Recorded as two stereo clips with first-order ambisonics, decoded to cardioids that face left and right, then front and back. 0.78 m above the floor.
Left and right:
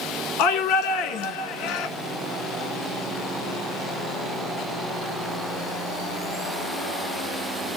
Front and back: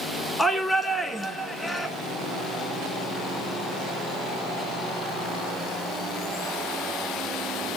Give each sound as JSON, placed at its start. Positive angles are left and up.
{"t": 0.4, "sound": "a shout", "azimuth_deg": 80, "distance_m": 2.0}